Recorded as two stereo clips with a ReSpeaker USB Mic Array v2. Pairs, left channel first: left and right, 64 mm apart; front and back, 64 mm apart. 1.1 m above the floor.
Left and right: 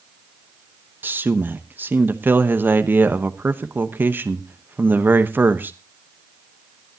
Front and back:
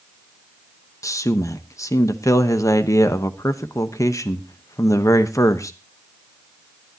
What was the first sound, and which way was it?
A man speaking, 30° right.